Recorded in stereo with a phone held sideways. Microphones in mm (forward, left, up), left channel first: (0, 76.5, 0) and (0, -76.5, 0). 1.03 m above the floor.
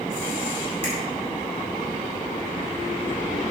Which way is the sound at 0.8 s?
40° right (ahead or behind).